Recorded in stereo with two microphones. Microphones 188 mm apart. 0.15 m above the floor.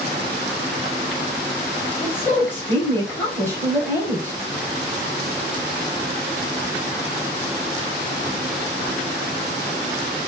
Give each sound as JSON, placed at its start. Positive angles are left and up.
{"t": 2.0, "sound": "a woman speaking", "side_deg": 10, "distance_m": 3.0}